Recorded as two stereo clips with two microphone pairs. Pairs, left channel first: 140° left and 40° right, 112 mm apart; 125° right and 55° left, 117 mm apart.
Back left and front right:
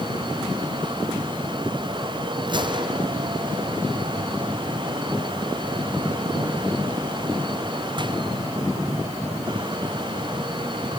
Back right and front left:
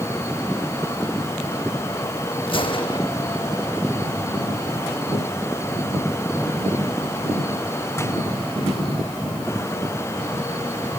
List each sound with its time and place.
2.5 s a gunshot: 85° right, 3 m